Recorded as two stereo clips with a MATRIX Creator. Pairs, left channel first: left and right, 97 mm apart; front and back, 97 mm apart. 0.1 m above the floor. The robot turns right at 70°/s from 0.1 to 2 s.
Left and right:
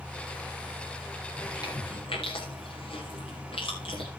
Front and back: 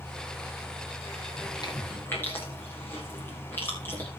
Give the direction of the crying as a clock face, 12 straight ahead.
No crying in this recording.